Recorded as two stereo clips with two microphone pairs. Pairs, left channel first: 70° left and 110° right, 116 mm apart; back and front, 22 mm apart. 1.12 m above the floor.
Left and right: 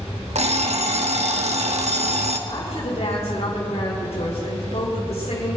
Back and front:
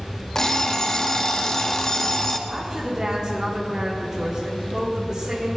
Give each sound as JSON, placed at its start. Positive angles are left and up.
{"t": 0.3, "sound": "an alarm clock", "azimuth_deg": -120, "distance_m": 1.0}
{"t": 2.5, "sound": "a woman speaking", "azimuth_deg": 50, "distance_m": 6.0}